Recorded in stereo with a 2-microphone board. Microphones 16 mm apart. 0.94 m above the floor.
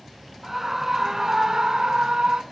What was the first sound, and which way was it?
A scream, 20° right (ahead or behind).